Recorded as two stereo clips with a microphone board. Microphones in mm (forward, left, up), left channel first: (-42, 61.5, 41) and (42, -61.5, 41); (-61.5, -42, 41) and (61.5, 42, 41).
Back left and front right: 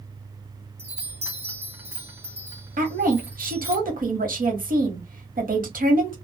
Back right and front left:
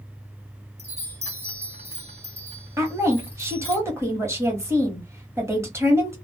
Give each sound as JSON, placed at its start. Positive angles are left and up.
{"t": 0.8, "sound": "a chime", "azimuth_deg": 15, "distance_m": 1.0}
{"t": 2.8, "sound": "a woman speaking", "azimuth_deg": -40, "distance_m": 1.2}